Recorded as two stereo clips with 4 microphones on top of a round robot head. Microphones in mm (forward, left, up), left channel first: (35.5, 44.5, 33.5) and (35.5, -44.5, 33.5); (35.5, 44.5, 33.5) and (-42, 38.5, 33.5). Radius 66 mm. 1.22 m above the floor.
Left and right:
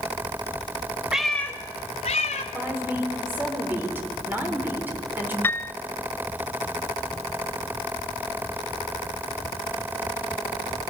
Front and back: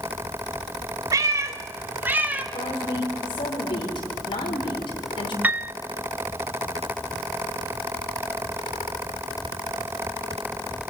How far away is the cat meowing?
About 0.9 m.